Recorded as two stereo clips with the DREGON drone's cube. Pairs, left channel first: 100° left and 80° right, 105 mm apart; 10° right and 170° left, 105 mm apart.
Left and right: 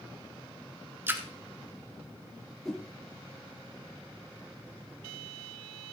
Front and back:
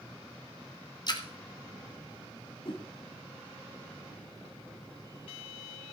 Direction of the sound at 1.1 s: 20° right.